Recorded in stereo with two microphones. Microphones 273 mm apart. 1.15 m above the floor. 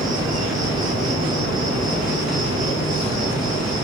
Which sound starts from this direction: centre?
An insect, at 0.0 s.